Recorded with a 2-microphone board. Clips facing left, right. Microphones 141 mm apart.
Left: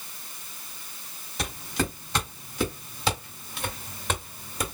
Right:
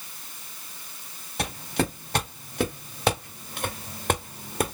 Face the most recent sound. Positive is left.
turn(degrees=-55)  # may be behind; listen again after turning